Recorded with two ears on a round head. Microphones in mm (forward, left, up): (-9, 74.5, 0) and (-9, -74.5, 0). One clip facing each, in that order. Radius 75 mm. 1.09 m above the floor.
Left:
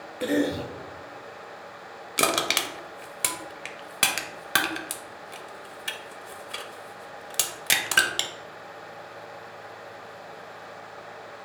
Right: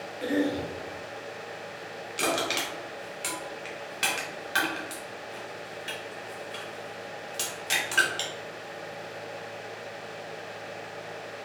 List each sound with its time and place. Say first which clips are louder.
0.2 s a cough: left 2 dB; 55° left (ahead or behind), 0.5 m
2.2 s crushing: left 2 dB; 65° left (ahead or behind), 0.5 m